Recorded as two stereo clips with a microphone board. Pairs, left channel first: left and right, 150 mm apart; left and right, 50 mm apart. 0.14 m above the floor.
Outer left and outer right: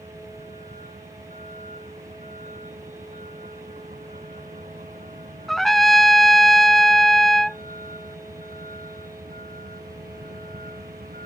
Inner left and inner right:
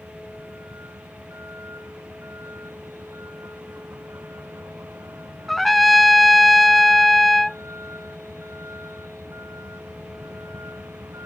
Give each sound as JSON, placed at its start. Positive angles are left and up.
{"t": 0.0, "sound": "a vehicle", "side_deg": -55}
{"t": 5.5, "sound": "a trumpet", "side_deg": 0}